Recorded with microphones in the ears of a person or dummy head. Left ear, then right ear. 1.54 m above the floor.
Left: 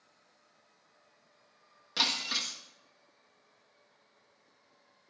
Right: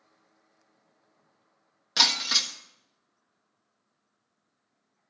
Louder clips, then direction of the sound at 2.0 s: Right 7 dB; 30° right (ahead or behind).